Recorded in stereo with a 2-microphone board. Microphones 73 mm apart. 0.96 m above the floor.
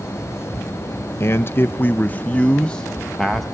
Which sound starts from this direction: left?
A man speaking, at 1.2 s.